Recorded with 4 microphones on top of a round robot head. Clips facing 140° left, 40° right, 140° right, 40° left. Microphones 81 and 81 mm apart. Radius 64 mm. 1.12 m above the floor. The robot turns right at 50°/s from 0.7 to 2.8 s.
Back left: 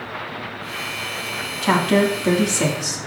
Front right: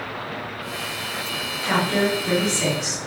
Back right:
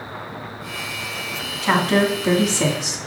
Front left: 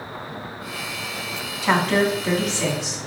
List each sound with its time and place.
1.6 s a woman speaking: 120° left, 2 m; by 3.0 s straight behind, 2 m